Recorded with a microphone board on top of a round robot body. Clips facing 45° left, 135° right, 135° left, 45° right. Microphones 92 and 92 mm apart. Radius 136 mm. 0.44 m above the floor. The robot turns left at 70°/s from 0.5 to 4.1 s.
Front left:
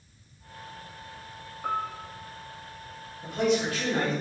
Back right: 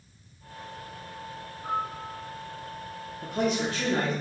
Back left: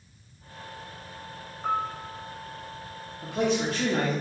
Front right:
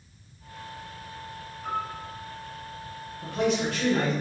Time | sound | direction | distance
1.6 | a piano | 85° left | 0.6 m
3.2 | a man speaking | 150° right | 1.2 m